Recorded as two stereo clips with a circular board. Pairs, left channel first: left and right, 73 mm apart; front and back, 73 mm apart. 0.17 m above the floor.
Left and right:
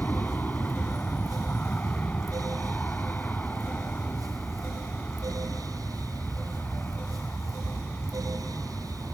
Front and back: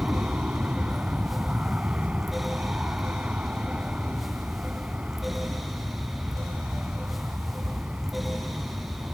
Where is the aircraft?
125° left.